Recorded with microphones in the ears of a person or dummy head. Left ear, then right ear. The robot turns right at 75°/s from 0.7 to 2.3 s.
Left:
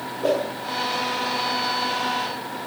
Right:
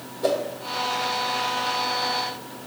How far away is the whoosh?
About 1.2 m.